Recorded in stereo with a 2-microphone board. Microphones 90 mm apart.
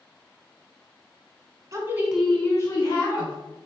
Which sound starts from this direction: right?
A woman speaking, at 1.7 s.